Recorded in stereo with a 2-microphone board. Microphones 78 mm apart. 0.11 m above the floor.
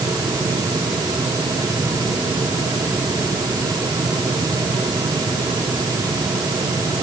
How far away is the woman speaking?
No woman speaking in this recording.